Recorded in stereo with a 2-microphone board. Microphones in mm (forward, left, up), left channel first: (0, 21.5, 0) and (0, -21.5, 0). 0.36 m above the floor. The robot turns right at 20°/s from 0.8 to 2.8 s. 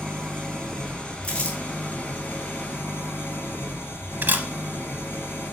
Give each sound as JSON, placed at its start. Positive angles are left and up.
{"t": 0.0, "sound": "an engine running", "azimuth_deg": 15, "distance_m": 2.5}
{"t": 1.2, "sound": "crumpling", "side_deg": 25, "distance_m": 3.0}
{"t": 4.2, "sound": "a camera shutter", "side_deg": -55, "distance_m": 0.6}